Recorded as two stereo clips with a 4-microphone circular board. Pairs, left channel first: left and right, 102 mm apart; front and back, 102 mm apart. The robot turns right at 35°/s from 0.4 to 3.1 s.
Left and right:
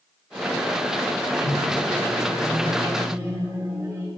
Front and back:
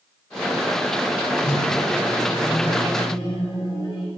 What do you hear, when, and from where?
1.4 s a microwave: 100° right, 3 m; by 4.1 s 40° right, 3 m